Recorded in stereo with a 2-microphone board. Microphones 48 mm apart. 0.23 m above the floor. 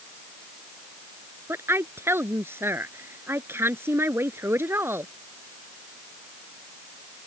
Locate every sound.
1.5 s a woman speaking: 60° right (ahead or behind)